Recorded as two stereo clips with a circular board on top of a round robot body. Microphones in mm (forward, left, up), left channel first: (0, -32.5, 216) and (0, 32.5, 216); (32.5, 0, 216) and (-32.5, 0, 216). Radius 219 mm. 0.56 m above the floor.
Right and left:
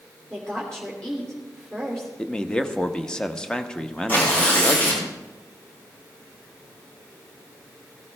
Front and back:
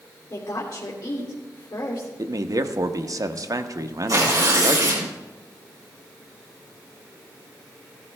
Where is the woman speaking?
10° right, 2.5 m.